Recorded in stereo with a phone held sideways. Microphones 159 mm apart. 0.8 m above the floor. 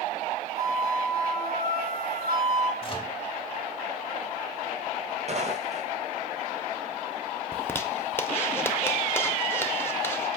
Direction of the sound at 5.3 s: 50° right (ahead or behind).